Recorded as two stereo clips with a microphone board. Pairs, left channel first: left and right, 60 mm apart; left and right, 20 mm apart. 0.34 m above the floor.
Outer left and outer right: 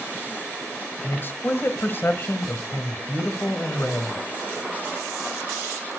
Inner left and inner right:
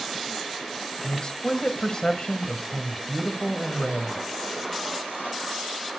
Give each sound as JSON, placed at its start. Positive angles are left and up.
{"t": 1.0, "sound": "a man speaking", "side_deg": 35, "distance_m": 1.5}